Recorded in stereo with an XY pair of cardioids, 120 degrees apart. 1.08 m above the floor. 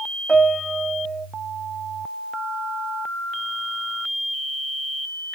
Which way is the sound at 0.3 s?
15° right.